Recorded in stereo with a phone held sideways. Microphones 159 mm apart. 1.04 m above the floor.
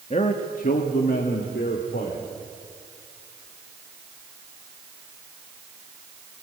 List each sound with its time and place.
0.1 s a man speaking: 45° left (ahead or behind), 1.4 m; by 2.2 s 80° left, 3 m